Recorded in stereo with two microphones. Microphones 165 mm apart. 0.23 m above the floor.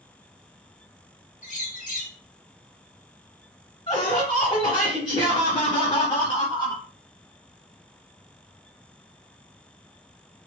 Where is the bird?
50° left (ahead or behind), 1.3 m.